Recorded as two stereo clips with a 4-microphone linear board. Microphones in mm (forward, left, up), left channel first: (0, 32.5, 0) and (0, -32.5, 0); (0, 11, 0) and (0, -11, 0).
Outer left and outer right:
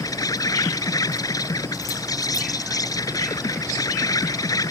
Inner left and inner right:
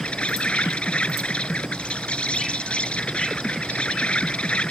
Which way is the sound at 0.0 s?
65° left (ahead or behind).